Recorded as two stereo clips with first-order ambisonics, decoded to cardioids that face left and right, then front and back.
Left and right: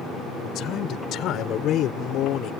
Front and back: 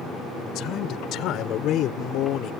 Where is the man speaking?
40° left; by 2.5 s 45° left.